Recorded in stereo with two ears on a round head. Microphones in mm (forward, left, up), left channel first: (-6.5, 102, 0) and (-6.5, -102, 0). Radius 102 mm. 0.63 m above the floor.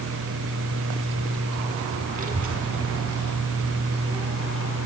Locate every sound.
2.1 s a child speaking: 35° right (ahead or behind), 1.1 m; by 4.8 s 50° right (ahead or behind), 3.5 m